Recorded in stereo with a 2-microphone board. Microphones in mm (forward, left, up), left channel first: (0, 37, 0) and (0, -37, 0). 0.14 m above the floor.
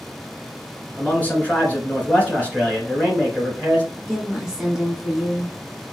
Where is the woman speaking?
10° right (ahead or behind), 1.4 m.